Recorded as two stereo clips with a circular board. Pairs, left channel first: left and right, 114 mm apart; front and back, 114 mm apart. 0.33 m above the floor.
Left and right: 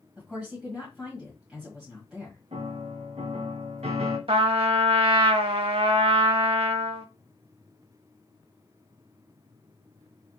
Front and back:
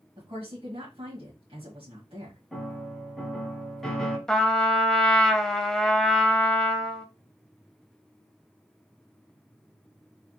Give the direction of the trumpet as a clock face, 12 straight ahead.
3 o'clock.